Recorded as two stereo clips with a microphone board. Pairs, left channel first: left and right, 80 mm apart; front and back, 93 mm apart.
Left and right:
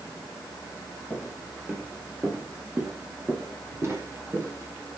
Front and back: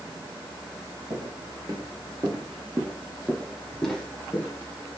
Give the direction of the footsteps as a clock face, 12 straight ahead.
5 o'clock.